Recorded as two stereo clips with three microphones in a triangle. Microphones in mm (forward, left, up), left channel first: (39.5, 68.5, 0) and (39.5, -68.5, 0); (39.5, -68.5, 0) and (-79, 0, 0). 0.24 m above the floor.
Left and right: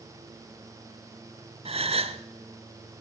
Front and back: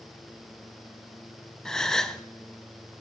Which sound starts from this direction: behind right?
A gasp, at 1.6 s.